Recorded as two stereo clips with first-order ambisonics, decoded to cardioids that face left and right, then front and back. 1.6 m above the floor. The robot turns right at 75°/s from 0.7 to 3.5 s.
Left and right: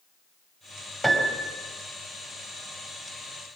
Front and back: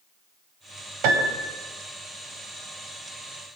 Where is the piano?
175° left, 4 m; by 1.6 s 145° right, 4 m.